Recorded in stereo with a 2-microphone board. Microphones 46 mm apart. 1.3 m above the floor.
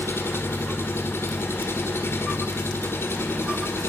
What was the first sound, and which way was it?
An engine running, 65° left (ahead or behind).